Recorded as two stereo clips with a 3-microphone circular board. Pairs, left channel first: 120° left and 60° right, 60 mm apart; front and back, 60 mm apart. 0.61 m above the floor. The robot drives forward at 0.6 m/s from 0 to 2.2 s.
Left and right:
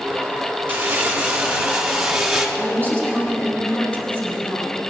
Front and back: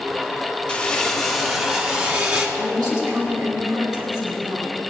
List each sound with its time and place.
0.7 s crumpling: 55° right, 1.2 m; by 2.5 s 140° right, 1.3 m
2.6 s a woman speaking: 175° right, 5 m